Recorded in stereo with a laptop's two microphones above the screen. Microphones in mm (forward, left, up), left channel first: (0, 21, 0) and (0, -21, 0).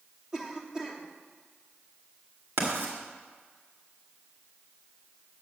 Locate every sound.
0.3 s a cough: 10° right (ahead or behind), 2.5 m
2.6 s writing: 60° right (ahead or behind), 2.5 m